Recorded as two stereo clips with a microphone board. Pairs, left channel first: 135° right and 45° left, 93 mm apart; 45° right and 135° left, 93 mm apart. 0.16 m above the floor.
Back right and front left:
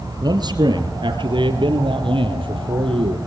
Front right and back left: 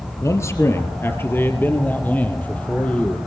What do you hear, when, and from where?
0.2 s a man speaking: 10° left, 3 m; by 3.2 s 30° left, 5 m